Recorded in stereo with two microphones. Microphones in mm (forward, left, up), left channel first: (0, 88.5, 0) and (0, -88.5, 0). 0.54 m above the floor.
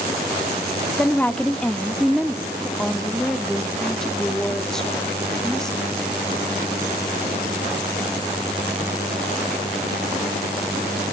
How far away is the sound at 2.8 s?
About 1.0 m.